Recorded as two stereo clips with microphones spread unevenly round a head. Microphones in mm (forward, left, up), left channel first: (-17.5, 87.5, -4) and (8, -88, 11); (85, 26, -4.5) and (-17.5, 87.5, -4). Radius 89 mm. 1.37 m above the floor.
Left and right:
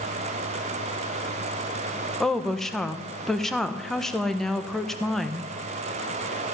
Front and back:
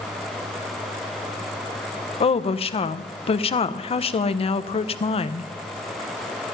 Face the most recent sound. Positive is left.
turn(degrees=10)